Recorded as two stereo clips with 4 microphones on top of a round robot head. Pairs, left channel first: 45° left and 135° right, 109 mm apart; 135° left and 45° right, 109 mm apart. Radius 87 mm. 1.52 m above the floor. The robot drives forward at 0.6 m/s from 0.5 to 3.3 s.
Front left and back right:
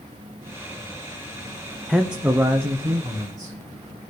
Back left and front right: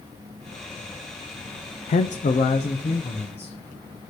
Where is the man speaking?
135° left, 0.5 m; by 3.5 s 165° left, 1.3 m.